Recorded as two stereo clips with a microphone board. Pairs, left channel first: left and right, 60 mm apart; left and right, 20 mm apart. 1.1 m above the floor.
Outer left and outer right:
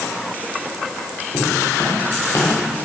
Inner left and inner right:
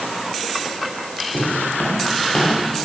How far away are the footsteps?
About 10 m.